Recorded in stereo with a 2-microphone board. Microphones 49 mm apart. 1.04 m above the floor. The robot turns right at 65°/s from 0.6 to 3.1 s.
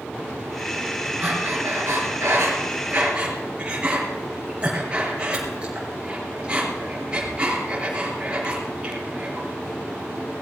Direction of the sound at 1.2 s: 35° right (ahead or behind).